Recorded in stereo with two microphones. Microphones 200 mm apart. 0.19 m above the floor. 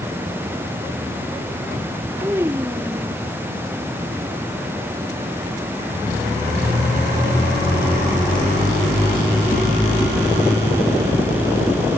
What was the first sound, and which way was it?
A child speaking, 15° right (ahead or behind).